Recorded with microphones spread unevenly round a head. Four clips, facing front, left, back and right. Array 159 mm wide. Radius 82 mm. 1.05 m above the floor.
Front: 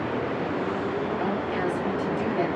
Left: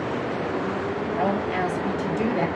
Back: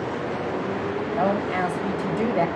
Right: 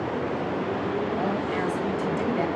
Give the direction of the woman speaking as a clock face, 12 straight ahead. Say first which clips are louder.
Left 2 dB, back 4 dB; 7 o'clock.